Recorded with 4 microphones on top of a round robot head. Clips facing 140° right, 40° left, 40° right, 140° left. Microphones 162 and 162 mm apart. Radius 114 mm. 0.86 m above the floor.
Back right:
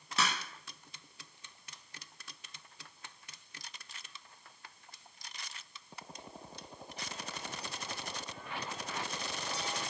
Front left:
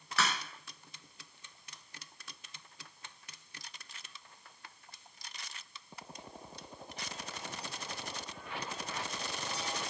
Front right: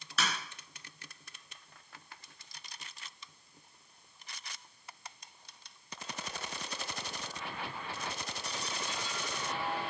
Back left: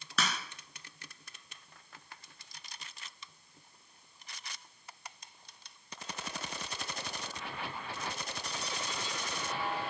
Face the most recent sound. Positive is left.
turn(degrees=150)